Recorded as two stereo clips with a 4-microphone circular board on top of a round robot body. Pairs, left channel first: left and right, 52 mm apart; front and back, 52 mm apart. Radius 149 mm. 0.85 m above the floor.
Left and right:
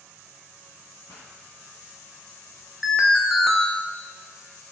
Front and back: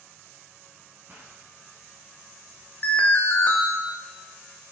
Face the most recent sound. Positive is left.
turn(degrees=-5)